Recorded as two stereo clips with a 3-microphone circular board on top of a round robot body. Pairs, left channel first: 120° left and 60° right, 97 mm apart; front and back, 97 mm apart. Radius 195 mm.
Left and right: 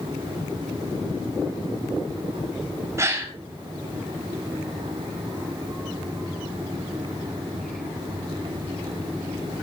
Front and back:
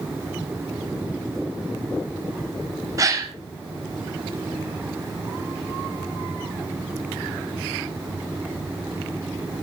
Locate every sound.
3.0 s a gasp: 125° right, 1.5 m